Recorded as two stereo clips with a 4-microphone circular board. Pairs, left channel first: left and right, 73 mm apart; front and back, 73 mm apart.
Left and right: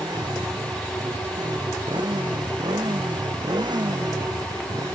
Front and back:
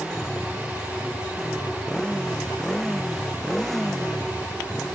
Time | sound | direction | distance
0.0 | a motorcycle | 85° right | ?